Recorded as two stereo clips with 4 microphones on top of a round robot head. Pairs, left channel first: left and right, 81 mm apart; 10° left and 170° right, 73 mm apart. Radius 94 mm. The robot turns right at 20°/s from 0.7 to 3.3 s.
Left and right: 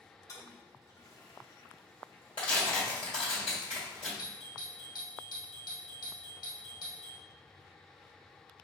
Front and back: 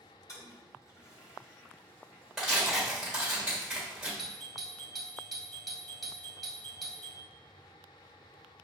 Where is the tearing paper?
105° left, 1.3 m; by 4.1 s 125° left, 1.3 m.